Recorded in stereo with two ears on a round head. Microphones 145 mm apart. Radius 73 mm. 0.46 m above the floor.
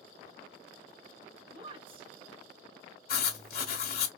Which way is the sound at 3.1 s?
60° left (ahead or behind).